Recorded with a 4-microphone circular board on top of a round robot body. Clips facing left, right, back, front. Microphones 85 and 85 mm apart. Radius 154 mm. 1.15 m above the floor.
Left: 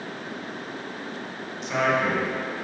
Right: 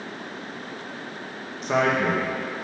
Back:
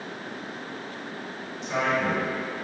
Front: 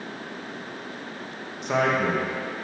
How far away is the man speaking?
About 1.2 m.